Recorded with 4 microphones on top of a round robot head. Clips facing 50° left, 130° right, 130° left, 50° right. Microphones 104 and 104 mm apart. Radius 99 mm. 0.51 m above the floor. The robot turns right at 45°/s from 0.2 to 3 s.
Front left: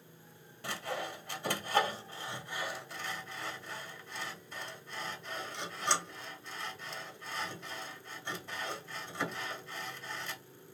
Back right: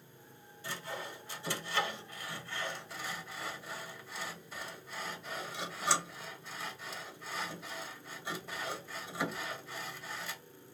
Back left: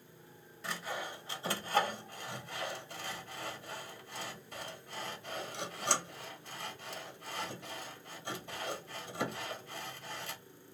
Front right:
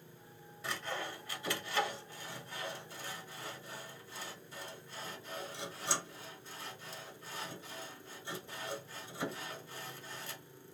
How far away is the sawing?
About 1.1 m.